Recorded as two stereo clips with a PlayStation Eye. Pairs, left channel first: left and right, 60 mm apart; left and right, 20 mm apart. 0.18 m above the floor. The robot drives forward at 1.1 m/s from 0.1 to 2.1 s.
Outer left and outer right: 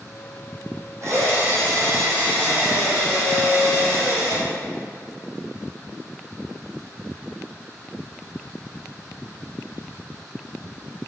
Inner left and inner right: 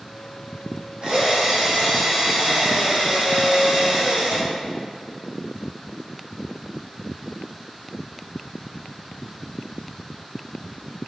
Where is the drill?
50° right (ahead or behind), 5 m; by 4.4 s 40° right (ahead or behind), 6 m.